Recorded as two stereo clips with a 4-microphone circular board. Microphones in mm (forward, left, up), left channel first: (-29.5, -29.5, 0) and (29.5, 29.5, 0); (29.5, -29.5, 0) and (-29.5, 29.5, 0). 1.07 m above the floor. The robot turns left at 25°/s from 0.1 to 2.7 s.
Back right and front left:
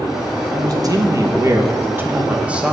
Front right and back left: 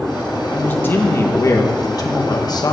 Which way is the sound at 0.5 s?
25° left.